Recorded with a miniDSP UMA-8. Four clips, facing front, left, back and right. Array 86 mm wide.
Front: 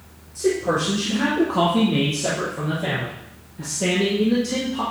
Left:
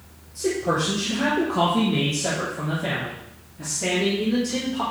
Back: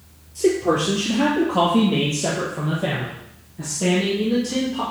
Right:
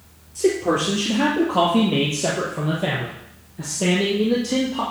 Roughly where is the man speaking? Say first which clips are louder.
Right 4 dB, back 2 dB; behind right.